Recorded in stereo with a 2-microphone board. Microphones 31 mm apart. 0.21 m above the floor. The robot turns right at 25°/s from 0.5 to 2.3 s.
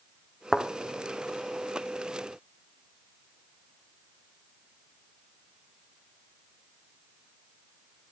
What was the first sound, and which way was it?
A thud, centre (ahead or behind).